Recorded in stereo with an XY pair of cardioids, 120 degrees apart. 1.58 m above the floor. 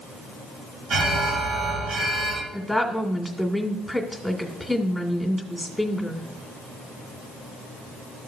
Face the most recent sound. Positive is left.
turn(degrees=0)